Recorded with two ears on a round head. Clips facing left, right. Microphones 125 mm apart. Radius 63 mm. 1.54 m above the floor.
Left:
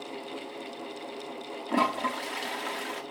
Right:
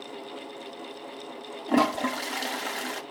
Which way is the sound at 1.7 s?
45° right (ahead or behind).